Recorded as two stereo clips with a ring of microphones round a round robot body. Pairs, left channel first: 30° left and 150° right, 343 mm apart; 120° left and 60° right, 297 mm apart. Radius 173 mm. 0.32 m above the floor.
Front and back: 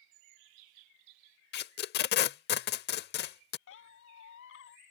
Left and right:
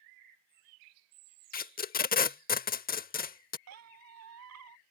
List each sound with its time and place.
1.5 s tape being pulled: 75° left
3.7 s a squeak: 25° right